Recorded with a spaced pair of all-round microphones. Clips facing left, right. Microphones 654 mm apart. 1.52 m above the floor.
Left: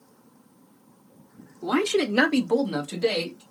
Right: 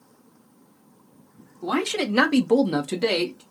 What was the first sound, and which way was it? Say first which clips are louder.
A man speaking: left 2 dB; centre (ahead or behind).